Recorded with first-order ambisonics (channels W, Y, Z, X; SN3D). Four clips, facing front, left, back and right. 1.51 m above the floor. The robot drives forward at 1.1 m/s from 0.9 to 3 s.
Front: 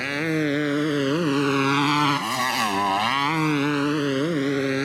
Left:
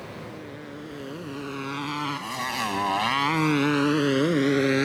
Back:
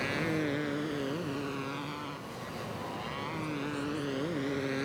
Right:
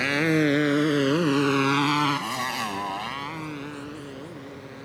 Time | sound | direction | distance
0.0 | a motorcycle | 65° right | ?